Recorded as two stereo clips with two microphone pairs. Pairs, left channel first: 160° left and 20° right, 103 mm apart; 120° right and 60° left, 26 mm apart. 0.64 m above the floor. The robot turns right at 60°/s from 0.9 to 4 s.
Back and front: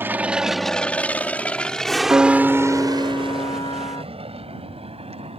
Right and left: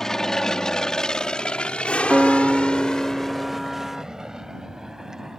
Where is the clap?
I don't hear a clap.